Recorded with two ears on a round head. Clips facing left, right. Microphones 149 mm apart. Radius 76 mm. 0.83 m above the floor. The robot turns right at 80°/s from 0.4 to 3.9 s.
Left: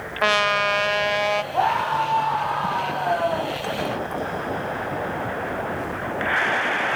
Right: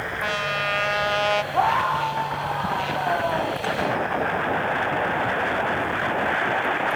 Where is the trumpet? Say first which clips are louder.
Left 8 dB; 100° left, 0.8 m; by 1.4 s 175° right, 0.8 m.